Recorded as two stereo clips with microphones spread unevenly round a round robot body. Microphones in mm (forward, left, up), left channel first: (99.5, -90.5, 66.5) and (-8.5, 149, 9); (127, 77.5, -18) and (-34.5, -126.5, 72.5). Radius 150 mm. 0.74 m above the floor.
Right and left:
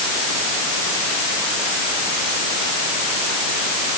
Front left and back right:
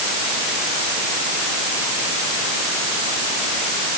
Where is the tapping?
No tapping in this recording.